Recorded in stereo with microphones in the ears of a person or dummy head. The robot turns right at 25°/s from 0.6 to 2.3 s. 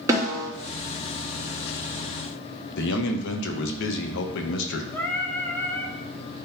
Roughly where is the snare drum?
Centre.